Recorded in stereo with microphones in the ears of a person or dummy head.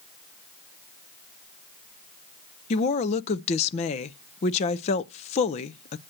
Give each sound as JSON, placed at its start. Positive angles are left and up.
{"t": 2.7, "sound": "a woman speaking", "side_deg": 35, "distance_m": 0.5}